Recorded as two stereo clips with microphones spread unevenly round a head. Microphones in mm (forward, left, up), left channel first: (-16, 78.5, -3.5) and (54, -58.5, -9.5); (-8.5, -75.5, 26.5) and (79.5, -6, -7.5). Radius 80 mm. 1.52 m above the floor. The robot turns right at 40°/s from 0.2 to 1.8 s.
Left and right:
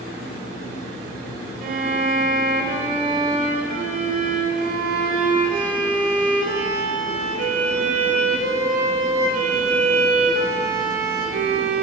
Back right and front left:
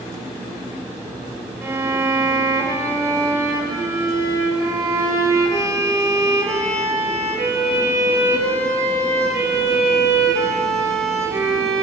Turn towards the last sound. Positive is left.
turn(degrees=-30)